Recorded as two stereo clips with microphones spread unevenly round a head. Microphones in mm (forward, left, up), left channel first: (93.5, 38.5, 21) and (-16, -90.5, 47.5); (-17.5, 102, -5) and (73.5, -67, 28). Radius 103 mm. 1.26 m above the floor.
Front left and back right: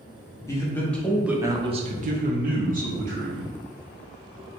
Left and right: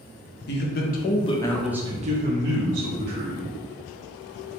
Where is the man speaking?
115° left, 0.9 m; by 3.5 s 85° right, 1.2 m.